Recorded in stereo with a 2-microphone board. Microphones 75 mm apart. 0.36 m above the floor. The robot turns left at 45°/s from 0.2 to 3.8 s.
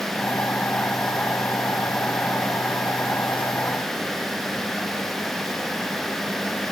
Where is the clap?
I don't hear a clap.